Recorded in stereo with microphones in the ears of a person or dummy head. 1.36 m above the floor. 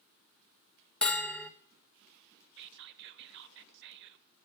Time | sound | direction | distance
1.0 | a bell | 10° left (ahead or behind) | 0.7 m
2.6 | whispering | 60° right (ahead or behind) | 0.9 m